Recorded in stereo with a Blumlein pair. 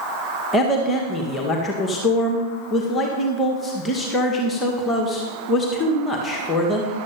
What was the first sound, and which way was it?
A man speaking, 15° left.